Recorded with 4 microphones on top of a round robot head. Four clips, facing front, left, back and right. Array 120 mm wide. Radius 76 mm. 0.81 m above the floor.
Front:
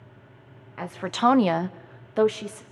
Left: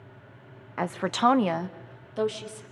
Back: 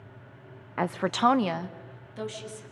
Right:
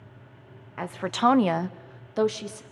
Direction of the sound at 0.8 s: 150° left.